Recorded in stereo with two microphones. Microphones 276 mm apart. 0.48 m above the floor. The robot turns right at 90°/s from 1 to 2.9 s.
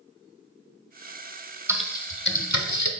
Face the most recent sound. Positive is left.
turn(degrees=80)